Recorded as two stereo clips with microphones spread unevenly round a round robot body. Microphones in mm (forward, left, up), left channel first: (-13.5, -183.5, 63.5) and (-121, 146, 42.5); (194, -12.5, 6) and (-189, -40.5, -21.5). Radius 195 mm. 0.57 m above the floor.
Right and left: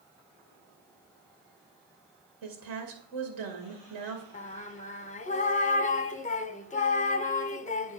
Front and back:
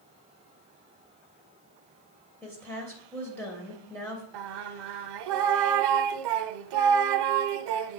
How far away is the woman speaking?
About 3 m.